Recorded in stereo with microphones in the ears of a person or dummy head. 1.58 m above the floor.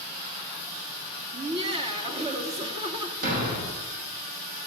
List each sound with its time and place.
1.3 s laughter: 30° right (ahead or behind), 3 m
3.2 s a thud: 45° right (ahead or behind), 5 m